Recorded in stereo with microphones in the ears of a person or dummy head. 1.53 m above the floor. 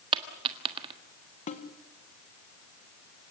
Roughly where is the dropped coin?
Right.